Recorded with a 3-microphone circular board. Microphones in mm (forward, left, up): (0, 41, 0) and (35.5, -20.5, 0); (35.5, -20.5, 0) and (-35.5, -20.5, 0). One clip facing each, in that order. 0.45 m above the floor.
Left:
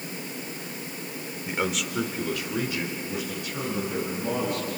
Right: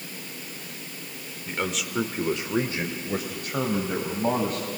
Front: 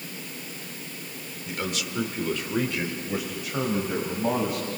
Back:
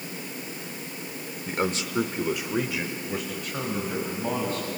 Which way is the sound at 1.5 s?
170° right.